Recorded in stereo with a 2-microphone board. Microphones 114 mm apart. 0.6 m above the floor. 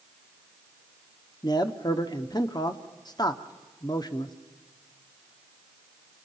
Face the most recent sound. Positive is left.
turn(degrees=35)  # may be behind; listen again after turning